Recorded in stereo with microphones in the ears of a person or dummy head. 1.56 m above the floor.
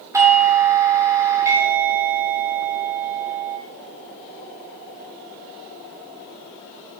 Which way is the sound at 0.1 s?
15° right (ahead or behind).